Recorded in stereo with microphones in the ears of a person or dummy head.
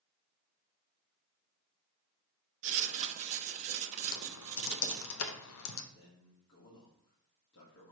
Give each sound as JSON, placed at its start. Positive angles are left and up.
{"t": 2.6, "sound": "writing", "side_deg": -40, "distance_m": 0.8}
{"t": 4.1, "sound": "typing on a keyboard", "side_deg": 85, "distance_m": 0.7}
{"t": 5.9, "sound": "a man speaking", "side_deg": 70, "distance_m": 1.6}